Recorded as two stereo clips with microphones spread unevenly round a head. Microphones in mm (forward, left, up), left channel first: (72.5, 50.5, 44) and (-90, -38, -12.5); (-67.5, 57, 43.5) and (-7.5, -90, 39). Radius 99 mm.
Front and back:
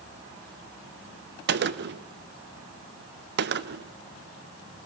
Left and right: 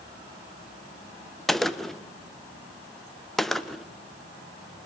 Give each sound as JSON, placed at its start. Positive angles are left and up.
{"t": 1.5, "sound": "a gunshot", "azimuth_deg": -160, "distance_m": 1.0}